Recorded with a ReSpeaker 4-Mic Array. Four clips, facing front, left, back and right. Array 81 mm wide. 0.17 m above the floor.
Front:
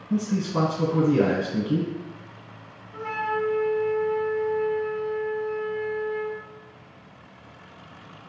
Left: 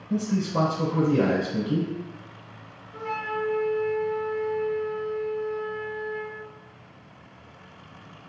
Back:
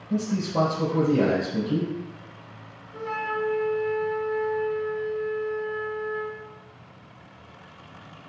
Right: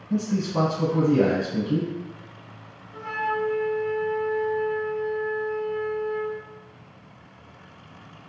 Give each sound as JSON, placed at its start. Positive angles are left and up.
{"t": 0.1, "sound": "a man speaking", "azimuth_deg": 10, "distance_m": 1.5}
{"t": 2.9, "sound": "a flute", "azimuth_deg": 5, "distance_m": 0.9}